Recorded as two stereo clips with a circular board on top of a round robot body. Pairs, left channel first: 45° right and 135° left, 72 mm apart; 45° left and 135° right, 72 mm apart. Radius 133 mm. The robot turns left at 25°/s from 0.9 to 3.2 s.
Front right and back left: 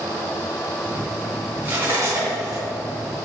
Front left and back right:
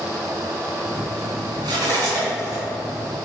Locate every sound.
1.6 s cutlery clinking: 155° right, 3 m; by 2.6 s straight behind, 3 m